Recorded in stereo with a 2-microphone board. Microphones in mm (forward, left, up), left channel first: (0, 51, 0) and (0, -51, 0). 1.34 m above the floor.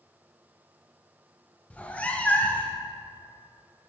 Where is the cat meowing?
15° left (ahead or behind), 0.6 m.